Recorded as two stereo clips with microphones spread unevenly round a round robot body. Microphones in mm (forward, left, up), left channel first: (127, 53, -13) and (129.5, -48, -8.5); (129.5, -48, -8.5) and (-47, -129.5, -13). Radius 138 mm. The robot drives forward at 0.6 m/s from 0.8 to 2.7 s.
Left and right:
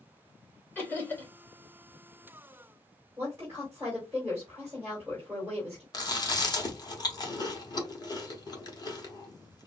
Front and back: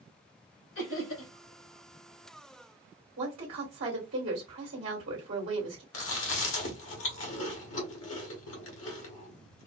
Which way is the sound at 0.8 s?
20° left.